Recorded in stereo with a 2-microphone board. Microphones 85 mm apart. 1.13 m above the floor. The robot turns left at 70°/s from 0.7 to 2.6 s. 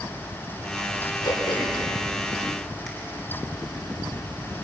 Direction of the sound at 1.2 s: 80° left.